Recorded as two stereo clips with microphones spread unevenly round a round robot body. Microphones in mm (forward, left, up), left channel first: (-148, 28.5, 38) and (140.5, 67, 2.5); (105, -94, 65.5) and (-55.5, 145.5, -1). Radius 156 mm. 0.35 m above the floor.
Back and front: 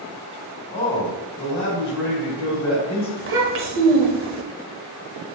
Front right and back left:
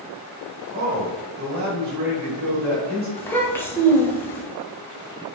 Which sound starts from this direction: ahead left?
A child speaking, at 3.2 s.